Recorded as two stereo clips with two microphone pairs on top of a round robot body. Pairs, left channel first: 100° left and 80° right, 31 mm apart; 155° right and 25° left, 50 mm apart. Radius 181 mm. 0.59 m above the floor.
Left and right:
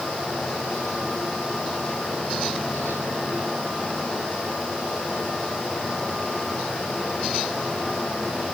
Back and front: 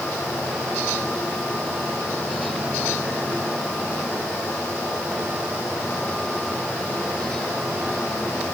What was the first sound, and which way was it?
Only background noise.